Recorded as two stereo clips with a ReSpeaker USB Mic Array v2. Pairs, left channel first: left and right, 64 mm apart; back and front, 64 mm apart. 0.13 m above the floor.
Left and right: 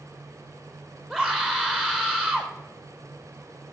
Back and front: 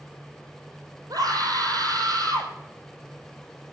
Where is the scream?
10° left, 4.5 m.